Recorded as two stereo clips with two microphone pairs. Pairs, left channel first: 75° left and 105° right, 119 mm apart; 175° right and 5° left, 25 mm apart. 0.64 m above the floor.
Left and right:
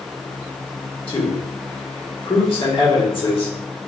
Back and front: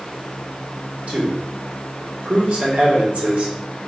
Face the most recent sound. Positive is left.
turn(degrees=35)